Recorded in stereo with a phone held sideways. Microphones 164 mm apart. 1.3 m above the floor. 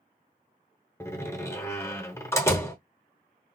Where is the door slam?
15° left (ahead or behind), 0.8 m.